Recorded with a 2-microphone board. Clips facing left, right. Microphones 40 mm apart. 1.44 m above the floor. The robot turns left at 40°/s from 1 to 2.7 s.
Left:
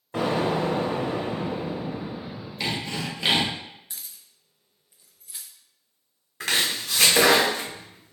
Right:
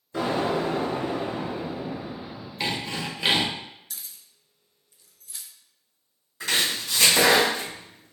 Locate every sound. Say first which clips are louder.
0.1 s an explosion: left 1 dB; 65° left, 1.6 m; by 2.5 s 5° left, 1.6 m
2.6 s sawing: even; 10° right (ahead or behind), 0.8 m; by 3.5 s 5° right (ahead or behind), 0.8 m
3.9 s keys jangling: even; 20° left (ahead or behind), 0.5 m
6.4 s chopping: even; 55° left (ahead or behind), 1.2 m